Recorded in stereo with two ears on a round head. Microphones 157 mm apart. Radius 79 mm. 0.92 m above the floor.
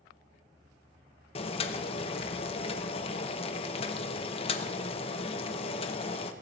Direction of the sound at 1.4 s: 35° left (ahead or behind).